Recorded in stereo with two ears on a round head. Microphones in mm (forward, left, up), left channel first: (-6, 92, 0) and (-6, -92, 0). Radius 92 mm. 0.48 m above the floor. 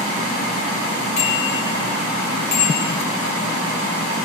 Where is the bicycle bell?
35° left (ahead or behind), 8.5 m; by 2.9 s 50° left (ahead or behind), 9 m.